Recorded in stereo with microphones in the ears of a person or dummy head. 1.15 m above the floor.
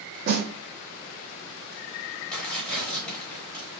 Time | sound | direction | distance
0.3 | a snare drum | 50° right (ahead or behind) | 1.1 m
2.3 | tearing paper | 5° left (ahead or behind) | 1.2 m